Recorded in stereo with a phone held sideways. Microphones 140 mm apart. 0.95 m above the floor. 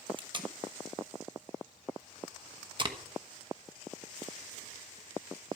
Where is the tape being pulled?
35° right (ahead or behind), 1.2 m.